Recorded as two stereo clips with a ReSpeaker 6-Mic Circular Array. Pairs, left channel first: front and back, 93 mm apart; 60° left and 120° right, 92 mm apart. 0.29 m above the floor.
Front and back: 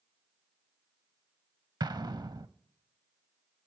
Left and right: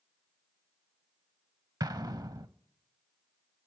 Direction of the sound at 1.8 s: 155° right.